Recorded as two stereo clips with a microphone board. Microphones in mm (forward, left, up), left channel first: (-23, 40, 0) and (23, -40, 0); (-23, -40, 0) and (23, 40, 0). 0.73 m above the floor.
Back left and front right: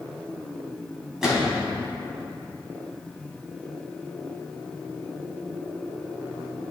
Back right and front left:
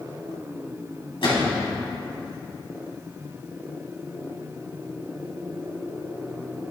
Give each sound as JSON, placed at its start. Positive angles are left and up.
{"t": 1.2, "sound": "a gunshot", "azimuth_deg": -145, "distance_m": 2.5}